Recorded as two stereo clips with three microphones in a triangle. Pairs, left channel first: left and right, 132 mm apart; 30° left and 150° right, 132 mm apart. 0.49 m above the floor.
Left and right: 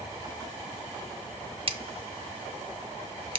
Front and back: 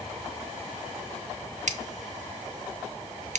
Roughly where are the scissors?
Behind right.